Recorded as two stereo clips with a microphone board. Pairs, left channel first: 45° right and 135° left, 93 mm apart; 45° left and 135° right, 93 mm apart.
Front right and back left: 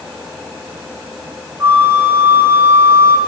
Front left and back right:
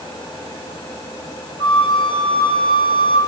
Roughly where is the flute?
Left.